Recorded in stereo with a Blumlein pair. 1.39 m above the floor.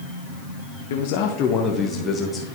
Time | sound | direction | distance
0.9 | a man speaking | 55° left | 0.8 m